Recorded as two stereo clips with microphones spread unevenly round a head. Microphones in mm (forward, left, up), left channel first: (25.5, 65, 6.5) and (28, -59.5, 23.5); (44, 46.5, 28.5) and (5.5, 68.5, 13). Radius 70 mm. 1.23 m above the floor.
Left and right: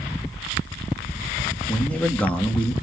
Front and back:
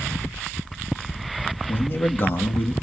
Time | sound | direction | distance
1.7 | a man speaking | 10° left | 2 m